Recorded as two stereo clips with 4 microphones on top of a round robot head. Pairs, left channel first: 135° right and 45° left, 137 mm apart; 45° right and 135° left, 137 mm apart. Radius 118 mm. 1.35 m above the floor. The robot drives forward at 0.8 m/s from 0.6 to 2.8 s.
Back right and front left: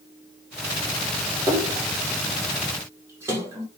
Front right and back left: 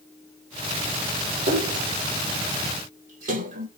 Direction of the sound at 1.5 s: 110° left.